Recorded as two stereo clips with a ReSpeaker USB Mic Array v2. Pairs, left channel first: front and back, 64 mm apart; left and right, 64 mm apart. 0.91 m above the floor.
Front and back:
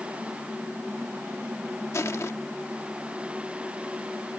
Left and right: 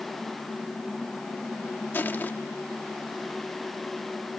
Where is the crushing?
35° left.